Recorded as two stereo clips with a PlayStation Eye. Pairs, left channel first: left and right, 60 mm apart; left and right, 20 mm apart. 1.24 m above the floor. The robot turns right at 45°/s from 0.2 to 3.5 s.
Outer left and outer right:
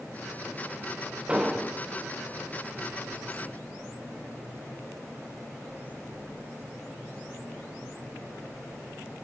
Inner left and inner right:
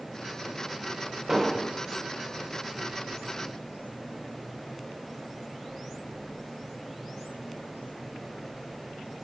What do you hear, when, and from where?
1.3 s an explosion: 20° right (ahead or behind), 0.6 m; by 1.8 s centre (ahead or behind), 0.6 m